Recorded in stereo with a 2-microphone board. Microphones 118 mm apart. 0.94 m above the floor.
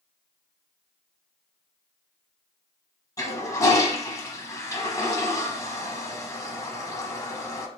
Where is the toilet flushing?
30° left (ahead or behind), 1.0 m.